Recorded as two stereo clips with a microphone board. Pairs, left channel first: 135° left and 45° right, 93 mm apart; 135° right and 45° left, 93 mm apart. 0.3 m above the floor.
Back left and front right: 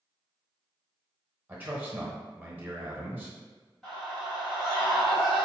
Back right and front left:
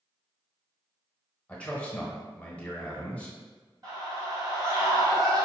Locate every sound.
1.5 s a man speaking: 75° right, 0.9 m
3.8 s a scream: 50° left, 2.0 m